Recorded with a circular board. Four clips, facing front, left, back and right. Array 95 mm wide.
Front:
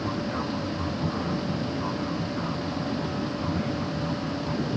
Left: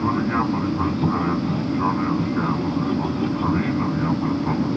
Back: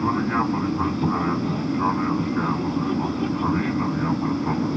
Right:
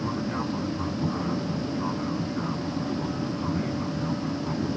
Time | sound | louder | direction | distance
0.0 | an aircraft | left 8 dB, back 7 dB | 135° left | ?